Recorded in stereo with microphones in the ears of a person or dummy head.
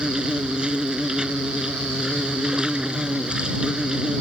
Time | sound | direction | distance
0.0 | an insect | centre (ahead or behind) | ?